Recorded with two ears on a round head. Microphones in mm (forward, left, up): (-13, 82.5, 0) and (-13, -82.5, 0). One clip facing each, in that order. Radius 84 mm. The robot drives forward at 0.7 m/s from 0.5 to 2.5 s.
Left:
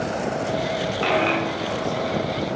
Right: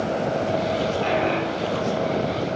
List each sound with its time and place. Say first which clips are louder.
1.0 s a dropped coin: left 1 dB; 65° left (ahead or behind), 2.5 m; by 2.3 s 85° left, 2 m